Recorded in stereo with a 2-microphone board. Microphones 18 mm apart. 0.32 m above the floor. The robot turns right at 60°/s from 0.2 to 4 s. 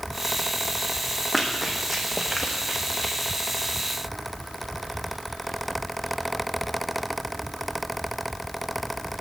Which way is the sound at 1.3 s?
Centre (ahead or behind).